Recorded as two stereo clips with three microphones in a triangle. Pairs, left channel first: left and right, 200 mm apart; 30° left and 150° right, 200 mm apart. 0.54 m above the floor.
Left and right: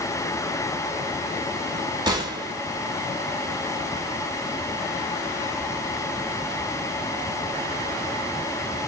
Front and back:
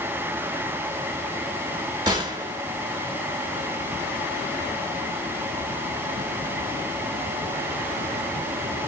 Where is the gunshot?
120° right, 1.4 m.